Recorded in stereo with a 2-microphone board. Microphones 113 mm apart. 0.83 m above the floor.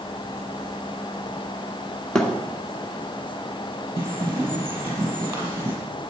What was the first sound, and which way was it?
A thud, 5° left (ahead or behind).